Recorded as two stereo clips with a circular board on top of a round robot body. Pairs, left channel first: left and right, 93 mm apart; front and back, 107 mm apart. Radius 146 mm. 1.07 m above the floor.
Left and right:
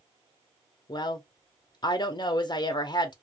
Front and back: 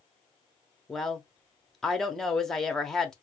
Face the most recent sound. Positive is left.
turn(degrees=85)